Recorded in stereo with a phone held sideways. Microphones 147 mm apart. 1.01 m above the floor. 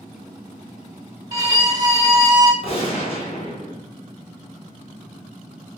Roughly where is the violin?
Right.